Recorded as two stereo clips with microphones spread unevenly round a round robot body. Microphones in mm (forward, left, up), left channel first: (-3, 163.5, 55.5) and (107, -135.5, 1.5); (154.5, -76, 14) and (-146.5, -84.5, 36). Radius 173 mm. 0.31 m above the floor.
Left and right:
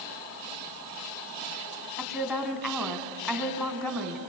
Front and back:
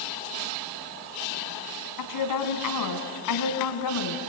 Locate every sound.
2.0 s a woman speaking: 15° left, 3 m